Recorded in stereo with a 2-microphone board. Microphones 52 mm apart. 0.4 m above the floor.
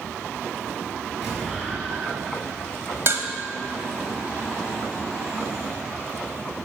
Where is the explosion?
5° right (ahead or behind), 4.5 m.